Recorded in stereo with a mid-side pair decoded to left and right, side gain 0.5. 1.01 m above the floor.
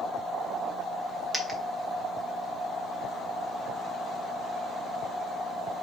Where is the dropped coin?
15° right, 1.3 m.